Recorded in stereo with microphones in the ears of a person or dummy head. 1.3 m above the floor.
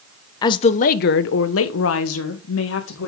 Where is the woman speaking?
25° left (ahead or behind), 0.8 m; by 3.1 s 70° left (ahead or behind), 1.9 m.